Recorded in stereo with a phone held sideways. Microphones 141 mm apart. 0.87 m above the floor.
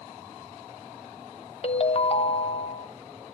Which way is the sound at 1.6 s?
45° left (ahead or behind).